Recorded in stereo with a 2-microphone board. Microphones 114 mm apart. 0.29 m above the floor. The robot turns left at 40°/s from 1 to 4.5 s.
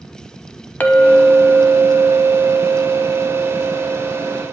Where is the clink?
15° left, 0.8 m; by 4.4 s 120° right, 0.8 m.